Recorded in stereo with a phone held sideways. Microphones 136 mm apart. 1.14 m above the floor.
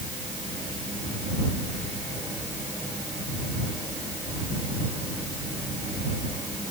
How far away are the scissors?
I don't hear scissors.